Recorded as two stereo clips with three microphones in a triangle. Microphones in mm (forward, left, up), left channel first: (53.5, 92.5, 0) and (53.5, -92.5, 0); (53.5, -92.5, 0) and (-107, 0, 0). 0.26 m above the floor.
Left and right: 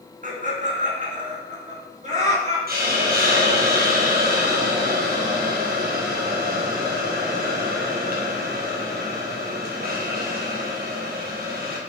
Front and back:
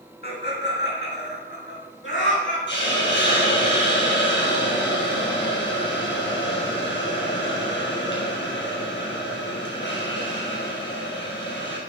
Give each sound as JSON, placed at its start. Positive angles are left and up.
{"t": 0.2, "sound": "laughter", "azimuth_deg": -50, "distance_m": 2.5}
{"t": 2.7, "sound": "a hiss", "azimuth_deg": -50, "distance_m": 2.5}